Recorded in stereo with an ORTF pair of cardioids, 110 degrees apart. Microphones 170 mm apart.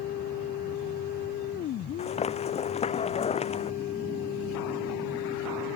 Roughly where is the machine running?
Left.